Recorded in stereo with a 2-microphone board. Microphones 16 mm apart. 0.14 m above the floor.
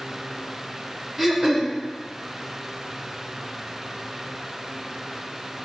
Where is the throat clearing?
30° right (ahead or behind), 0.8 m.